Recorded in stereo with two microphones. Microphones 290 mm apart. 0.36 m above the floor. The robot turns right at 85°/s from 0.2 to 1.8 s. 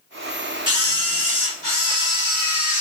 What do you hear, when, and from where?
0.7 s a camera shutter: 15° right (ahead or behind), 1.0 m; by 2.8 s 20° right (ahead or behind), 1.0 m